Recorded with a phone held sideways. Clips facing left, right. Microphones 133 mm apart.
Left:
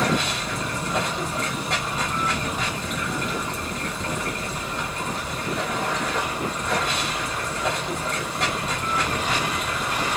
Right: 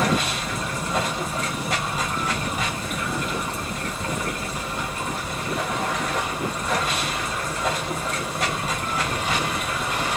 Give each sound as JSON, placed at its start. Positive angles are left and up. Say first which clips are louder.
{"t": 0.0, "sound": "running water", "louder": "right 1 dB", "side_deg": -5, "distance_m": 1.5}